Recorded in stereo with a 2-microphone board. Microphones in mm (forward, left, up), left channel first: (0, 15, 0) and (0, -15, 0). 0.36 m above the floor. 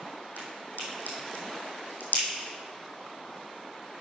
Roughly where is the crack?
Left.